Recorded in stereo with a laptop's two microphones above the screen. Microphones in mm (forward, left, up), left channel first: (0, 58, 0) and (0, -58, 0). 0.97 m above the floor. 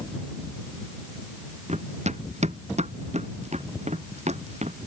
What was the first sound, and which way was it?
Running footsteps, 80° right.